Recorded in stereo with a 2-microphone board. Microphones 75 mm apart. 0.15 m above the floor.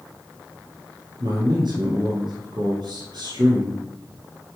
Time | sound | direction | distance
1.2 | a man speaking | 65° right (ahead or behind) | 3 m